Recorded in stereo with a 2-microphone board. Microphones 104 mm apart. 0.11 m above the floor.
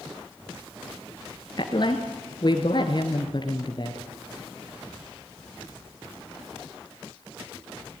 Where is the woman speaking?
45° left (ahead or behind), 2 m.